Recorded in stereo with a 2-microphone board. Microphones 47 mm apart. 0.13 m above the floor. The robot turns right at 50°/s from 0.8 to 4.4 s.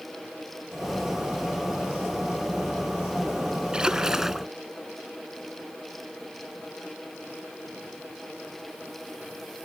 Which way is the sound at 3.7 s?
20° right (ahead or behind).